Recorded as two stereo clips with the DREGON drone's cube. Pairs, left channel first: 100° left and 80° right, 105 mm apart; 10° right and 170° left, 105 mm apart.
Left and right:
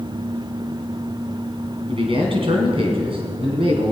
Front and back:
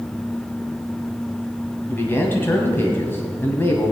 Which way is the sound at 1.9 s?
80° right.